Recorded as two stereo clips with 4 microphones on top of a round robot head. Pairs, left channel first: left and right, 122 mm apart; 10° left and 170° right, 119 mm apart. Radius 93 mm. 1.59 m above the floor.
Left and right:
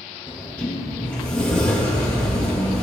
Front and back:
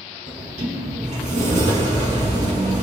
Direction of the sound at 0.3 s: 170° left.